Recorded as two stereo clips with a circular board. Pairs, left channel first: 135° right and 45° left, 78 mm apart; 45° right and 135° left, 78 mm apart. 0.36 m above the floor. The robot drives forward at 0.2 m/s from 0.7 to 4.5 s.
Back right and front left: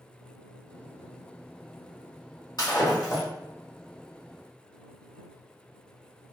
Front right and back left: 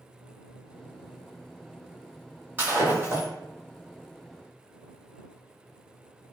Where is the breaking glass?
160° right, 1.2 m; by 3.3 s 165° right, 1.3 m.